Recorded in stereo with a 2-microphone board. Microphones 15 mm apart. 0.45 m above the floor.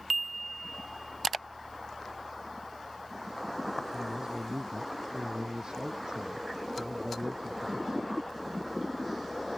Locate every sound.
3.9 s a man speaking: 55° right (ahead or behind)